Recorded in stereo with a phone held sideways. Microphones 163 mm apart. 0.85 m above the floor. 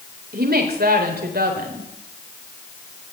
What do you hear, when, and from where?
0.3 s a woman speaking: 80° right, 3.5 m